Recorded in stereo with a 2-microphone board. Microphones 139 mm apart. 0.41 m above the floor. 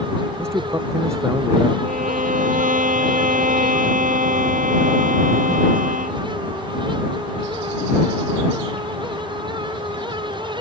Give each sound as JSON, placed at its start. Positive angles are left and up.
{"t": 0.4, "sound": "a man speaking", "side_deg": -20}
{"t": 1.8, "sound": "a violin", "side_deg": -80}